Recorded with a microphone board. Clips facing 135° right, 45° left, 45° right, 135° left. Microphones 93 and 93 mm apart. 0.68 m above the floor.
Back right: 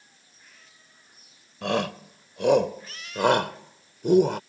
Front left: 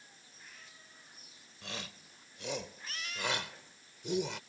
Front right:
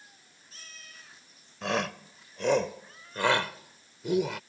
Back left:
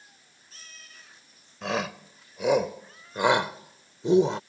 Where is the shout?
135° right; by 4.4 s 165° right.